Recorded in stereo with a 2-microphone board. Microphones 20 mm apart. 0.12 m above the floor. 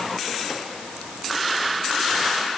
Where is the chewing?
I don't hear chewing.